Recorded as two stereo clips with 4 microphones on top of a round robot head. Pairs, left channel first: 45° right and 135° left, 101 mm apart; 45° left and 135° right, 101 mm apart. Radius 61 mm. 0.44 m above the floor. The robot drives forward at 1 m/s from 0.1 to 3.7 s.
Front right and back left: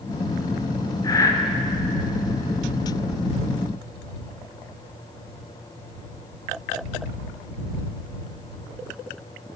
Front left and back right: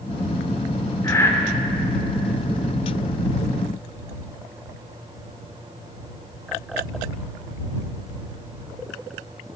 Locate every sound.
1.0 s breathing: 5° right, 1.5 m; by 1.3 s 10° right, 1.3 m